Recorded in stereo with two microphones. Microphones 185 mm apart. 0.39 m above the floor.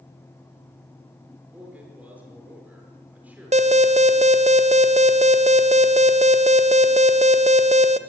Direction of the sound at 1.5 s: 5° right (ahead or behind).